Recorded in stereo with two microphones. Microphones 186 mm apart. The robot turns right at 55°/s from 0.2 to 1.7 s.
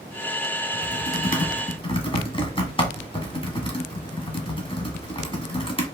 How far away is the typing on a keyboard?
About 1.2 m.